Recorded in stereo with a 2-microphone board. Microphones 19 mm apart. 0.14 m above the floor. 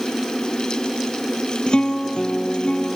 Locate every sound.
1.7 s a guitar: 60° left (ahead or behind), 2 m